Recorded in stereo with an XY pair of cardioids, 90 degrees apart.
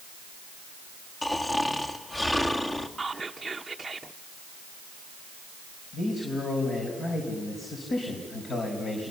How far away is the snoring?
About 2 m.